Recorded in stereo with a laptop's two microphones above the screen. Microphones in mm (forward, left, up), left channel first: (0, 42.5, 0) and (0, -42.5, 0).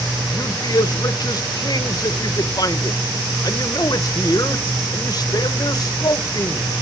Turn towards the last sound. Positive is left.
turn(degrees=50)  # may be behind; listen again after turning